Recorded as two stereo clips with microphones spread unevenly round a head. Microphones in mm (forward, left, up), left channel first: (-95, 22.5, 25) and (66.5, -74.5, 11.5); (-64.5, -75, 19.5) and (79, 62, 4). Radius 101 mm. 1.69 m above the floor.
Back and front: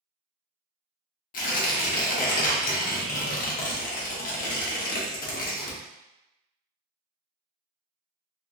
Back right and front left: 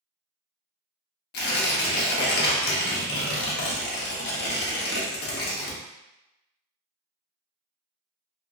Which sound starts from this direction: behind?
Tearing paper, at 1.3 s.